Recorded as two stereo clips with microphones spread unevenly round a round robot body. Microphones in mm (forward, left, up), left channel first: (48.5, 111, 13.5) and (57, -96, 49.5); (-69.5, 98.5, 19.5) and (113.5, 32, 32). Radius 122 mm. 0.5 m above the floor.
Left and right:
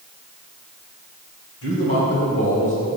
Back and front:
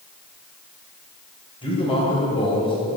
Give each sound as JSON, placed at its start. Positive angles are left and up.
{"t": 1.6, "sound": "a man speaking", "azimuth_deg": 100, "distance_m": 3.0}